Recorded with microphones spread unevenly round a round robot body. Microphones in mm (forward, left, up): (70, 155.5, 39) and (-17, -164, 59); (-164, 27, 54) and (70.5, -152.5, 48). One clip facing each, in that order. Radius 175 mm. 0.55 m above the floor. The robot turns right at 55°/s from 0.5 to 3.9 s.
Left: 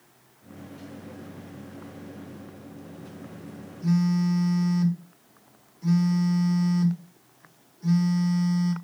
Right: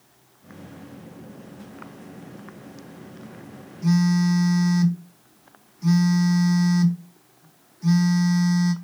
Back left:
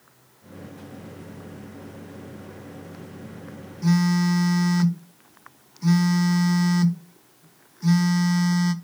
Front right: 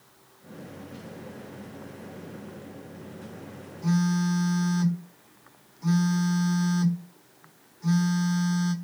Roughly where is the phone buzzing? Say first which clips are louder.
Right 3 dB, back left 4 dB; behind.